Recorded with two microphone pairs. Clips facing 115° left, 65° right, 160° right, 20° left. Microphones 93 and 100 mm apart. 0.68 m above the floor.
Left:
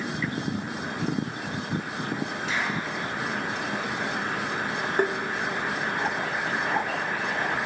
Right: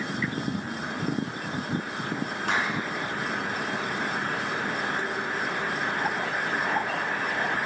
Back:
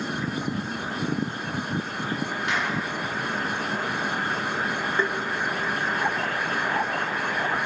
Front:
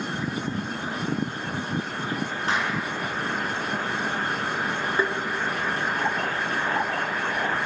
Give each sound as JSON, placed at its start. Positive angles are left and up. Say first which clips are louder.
{"t": 2.5, "sound": "a clap", "louder": "right 3 dB, front 2 dB", "azimuth_deg": -35, "distance_m": 8.5}
{"t": 5.0, "sound": "tapping", "louder": "left 7 dB, front 1 dB", "azimuth_deg": 105, "distance_m": 1.0}